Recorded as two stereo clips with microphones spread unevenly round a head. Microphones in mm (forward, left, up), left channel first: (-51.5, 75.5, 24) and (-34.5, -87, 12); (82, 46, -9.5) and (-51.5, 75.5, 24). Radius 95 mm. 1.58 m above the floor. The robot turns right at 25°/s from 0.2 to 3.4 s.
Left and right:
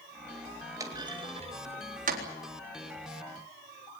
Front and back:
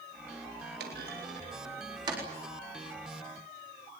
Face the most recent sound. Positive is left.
turn(degrees=-90)